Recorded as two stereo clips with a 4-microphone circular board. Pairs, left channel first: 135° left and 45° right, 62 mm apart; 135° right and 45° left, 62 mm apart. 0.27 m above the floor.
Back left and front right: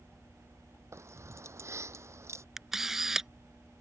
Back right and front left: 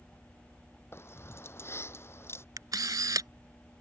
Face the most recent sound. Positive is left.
turn(degrees=40)